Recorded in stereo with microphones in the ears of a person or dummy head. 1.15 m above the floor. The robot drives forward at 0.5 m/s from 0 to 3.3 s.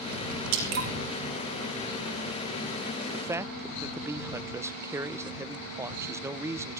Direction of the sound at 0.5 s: 75° right (ahead or behind).